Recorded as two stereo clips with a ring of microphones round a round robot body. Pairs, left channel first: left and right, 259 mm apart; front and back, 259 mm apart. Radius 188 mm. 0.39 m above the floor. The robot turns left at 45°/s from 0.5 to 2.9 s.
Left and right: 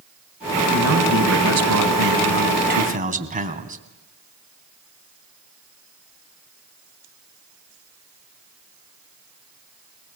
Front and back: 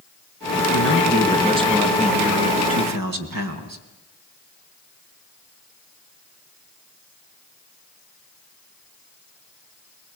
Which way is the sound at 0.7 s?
50° right.